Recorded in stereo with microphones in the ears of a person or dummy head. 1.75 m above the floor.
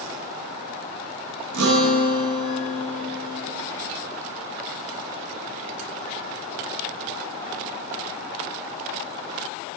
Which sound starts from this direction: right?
A guitar, at 1.5 s.